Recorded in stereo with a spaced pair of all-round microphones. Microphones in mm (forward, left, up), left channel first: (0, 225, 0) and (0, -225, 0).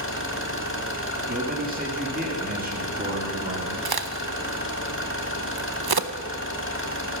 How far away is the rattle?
No rattle in this recording.